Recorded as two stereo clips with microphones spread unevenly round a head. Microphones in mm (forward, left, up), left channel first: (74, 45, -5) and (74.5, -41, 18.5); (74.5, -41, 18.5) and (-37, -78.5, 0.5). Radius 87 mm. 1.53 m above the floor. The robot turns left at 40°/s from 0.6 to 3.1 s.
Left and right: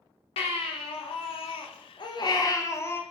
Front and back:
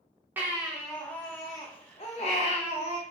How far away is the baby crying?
About 1.1 m.